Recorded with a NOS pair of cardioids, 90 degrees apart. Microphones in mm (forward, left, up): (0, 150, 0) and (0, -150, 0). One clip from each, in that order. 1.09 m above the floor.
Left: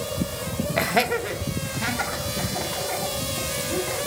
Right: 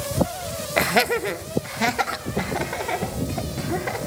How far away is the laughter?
About 0.9 m.